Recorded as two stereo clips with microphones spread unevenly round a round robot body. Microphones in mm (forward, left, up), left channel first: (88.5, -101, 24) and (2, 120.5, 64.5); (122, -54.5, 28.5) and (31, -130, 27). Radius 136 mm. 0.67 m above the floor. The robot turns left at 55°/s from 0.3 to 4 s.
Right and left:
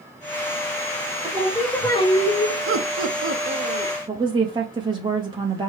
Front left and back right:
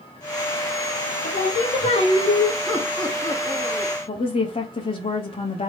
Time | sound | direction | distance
1.2 | singing | 45° left | 1.0 m
2.7 | laughter | 130° left | 0.9 m
4.1 | a woman speaking | 35° left | 0.7 m